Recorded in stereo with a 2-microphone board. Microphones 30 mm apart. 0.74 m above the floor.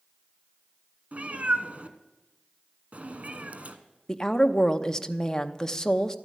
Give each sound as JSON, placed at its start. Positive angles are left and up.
{"t": 1.1, "sound": "a cat meowing", "side_deg": -50, "distance_m": 1.1}
{"t": 4.1, "sound": "a woman speaking", "side_deg": 20, "distance_m": 0.8}